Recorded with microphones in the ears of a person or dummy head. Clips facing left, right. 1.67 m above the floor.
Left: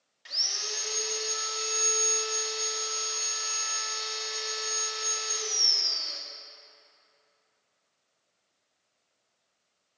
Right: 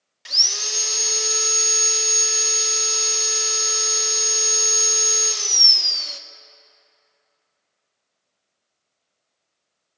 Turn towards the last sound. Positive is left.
turn(degrees=-70)  # may be behind; listen again after turning